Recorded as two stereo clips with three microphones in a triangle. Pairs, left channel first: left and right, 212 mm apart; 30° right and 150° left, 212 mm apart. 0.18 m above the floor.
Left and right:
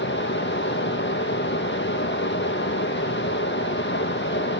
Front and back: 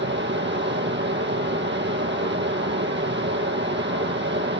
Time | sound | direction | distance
0.0 | running water | 120° left | 2 m